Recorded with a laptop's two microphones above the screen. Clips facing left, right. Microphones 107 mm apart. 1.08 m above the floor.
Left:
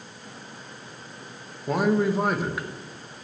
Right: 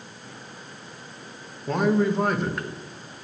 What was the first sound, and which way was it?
A man speaking, 5° left (ahead or behind).